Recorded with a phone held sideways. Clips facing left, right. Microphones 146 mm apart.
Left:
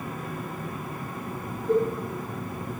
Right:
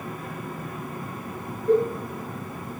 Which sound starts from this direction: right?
A cowbell, at 1.7 s.